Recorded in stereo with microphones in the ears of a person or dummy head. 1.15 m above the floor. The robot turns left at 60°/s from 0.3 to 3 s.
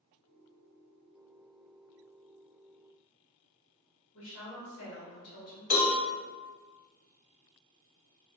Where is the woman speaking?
65° left (ahead or behind), 1.3 m.